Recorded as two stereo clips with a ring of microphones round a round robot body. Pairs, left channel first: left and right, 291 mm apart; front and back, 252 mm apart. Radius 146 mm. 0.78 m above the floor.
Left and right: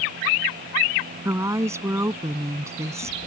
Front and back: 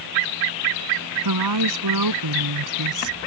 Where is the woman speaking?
170° right.